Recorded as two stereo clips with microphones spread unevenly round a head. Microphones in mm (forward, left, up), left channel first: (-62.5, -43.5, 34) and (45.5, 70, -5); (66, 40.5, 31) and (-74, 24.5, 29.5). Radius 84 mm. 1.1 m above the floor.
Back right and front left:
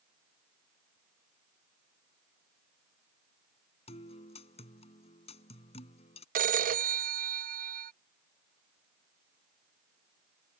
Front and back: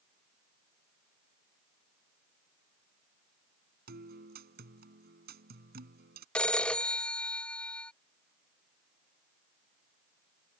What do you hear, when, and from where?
3.9 s a guitar: 175° left
6.3 s a phone ringing: 90° left